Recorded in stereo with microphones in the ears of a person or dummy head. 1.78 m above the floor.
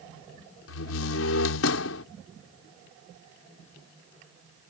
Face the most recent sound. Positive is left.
turn(degrees=75)  # may be behind; listen again after turning